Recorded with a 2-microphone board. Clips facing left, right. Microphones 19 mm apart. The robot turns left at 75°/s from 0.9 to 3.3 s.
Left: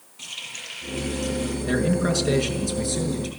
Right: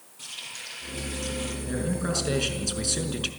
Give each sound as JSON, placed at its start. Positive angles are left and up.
{"t": 0.2, "sound": "a running tap", "azimuth_deg": 30, "distance_m": 6.5}
{"t": 1.7, "sound": "a man speaking", "azimuth_deg": 40, "distance_m": 5.0}